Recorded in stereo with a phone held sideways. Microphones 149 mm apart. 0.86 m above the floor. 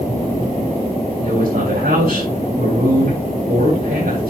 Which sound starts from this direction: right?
A man speaking, at 1.2 s.